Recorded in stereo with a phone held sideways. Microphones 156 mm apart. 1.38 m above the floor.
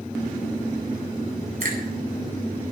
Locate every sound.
1.6 s a finger snap: 80° right, 9.5 m